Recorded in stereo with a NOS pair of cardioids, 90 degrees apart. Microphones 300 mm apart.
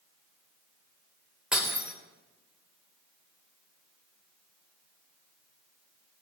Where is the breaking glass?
5° right, 3.5 m.